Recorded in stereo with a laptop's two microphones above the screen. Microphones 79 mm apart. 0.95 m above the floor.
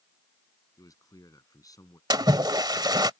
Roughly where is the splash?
Right.